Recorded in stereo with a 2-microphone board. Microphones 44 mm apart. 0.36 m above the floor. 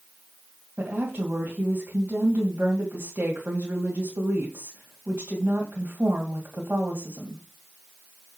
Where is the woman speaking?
50° right (ahead or behind), 2 m.